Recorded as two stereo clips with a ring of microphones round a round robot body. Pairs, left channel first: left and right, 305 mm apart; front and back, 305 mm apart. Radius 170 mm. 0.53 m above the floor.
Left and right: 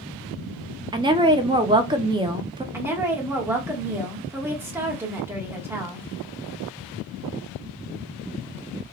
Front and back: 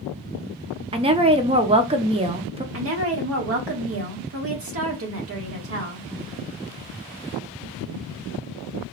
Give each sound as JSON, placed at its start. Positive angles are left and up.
{"t": 0.9, "sound": "a woman speaking", "azimuth_deg": -140, "distance_m": 0.6}
{"t": 2.7, "sound": "a woman speaking", "azimuth_deg": -170, "distance_m": 1.2}